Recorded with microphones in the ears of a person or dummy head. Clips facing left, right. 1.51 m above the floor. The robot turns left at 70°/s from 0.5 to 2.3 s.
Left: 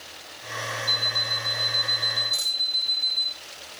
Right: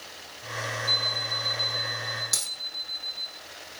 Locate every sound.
0.9 s an alarm clock: 10° right (ahead or behind), 1.1 m; by 3.3 s 25° left (ahead or behind), 1.1 m
2.3 s a dropped coin: 75° right (ahead or behind), 9.5 m